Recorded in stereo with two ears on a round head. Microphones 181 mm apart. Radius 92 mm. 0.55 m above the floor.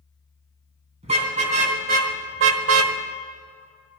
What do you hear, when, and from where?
1.0 s a car horn: 30° right (ahead or behind), 3 m; by 3.0 s 70° right (ahead or behind), 1.0 m